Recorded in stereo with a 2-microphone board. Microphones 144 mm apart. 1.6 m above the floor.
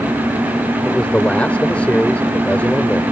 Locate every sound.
0.8 s a man speaking: 10° left (ahead or behind)